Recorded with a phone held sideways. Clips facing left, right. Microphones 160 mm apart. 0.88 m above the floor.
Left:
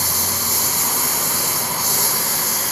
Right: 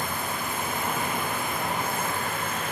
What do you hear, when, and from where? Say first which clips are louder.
0.0 s a lawn mower: left 2 dB; 85° left